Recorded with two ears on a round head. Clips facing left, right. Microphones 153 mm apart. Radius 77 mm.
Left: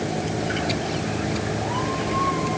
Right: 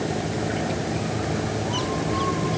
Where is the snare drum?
I don't hear a snare drum.